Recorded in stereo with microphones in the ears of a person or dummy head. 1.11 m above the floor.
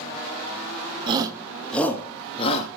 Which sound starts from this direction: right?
A shout, at 1.1 s.